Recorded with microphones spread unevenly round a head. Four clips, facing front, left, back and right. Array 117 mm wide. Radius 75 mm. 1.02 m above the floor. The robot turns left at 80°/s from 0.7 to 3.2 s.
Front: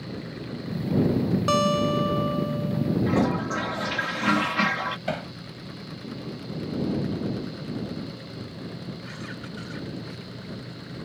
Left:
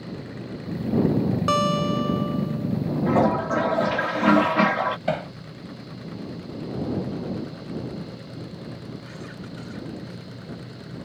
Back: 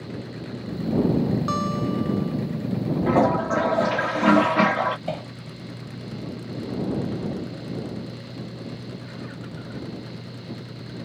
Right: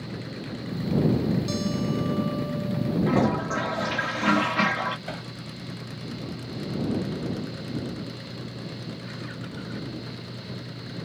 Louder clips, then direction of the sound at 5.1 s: Left 10 dB, even; 105° left.